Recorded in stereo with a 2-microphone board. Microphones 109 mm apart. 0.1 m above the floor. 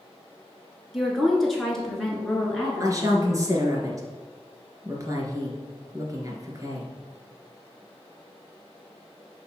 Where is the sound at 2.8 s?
30° right (ahead or behind), 1.3 m.